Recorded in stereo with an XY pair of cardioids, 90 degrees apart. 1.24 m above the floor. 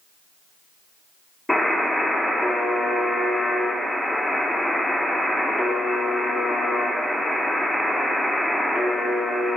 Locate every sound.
1.5 s a buzzer: 5° left, 4.5 m